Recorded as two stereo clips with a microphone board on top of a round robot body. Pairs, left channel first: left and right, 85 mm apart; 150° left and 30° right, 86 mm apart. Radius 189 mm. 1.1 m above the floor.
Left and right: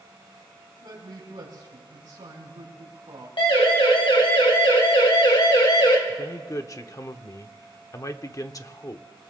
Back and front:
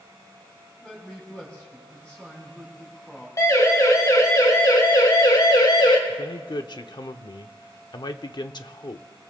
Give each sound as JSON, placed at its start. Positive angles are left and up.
{"t": 0.8, "sound": "a man speaking", "azimuth_deg": -130, "distance_m": 4.5}
{"t": 3.4, "sound": "a siren", "azimuth_deg": 100, "distance_m": 3.5}
{"t": 6.1, "sound": "a man speaking", "azimuth_deg": 130, "distance_m": 1.0}